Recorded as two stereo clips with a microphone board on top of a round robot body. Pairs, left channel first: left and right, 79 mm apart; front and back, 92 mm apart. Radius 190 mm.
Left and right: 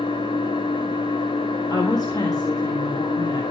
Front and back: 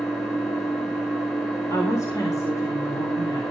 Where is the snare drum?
I don't hear a snare drum.